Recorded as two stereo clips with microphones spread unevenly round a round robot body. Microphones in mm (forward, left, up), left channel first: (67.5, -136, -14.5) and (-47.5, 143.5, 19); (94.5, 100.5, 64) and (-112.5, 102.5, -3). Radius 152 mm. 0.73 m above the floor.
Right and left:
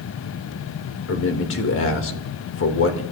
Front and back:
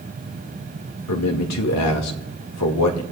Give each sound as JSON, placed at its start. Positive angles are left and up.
{"t": 1.1, "sound": "a man speaking", "azimuth_deg": -20, "distance_m": 2.0}